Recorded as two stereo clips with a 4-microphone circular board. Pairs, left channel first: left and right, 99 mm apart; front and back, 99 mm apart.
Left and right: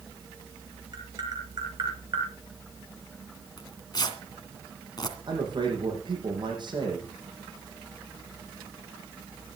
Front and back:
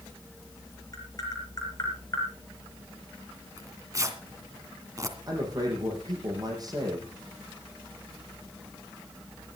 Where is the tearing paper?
125° left, 2.5 m.